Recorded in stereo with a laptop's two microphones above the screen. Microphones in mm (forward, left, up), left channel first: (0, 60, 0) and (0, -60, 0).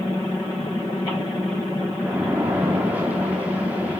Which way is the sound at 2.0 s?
15° right (ahead or behind).